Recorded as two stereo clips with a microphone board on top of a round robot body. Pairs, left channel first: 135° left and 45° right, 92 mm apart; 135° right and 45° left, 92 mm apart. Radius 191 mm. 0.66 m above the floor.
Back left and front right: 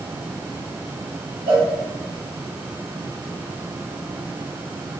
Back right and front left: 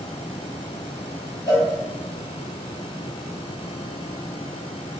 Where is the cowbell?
75° right, 1.1 m.